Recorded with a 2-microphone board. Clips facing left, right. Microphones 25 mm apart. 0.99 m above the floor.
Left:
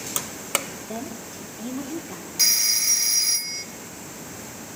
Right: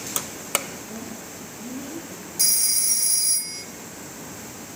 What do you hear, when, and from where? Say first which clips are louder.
0.9 s a woman speaking: left 2 dB; 75° left (ahead or behind), 2.5 m; by 2.3 s 50° left (ahead or behind), 3 m
2.4 s a phone ringing: left 4 dB; 40° left (ahead or behind), 1.1 m